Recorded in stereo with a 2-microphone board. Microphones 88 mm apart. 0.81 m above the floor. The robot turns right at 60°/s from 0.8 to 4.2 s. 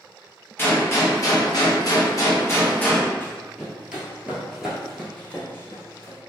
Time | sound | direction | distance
0.6 | a gunshot | 35° left | 0.7 m
3.2 | running footsteps | 20° left (ahead or behind) | 1.3 m